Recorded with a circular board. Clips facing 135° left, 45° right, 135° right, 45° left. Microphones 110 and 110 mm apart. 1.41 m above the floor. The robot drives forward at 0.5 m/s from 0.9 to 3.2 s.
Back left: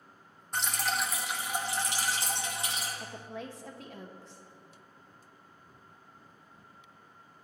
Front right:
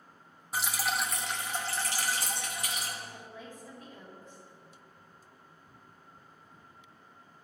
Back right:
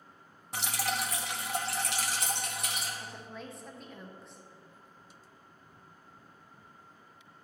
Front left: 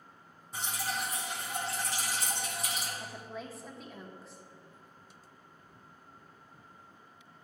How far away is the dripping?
About 0.6 m.